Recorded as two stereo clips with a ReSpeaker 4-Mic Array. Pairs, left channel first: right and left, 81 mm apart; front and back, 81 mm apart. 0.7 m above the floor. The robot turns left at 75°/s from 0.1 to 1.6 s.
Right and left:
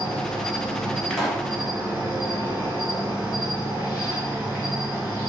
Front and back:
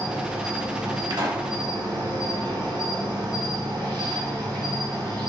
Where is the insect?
95° right, 2 m; by 5.3 s 155° left, 2 m.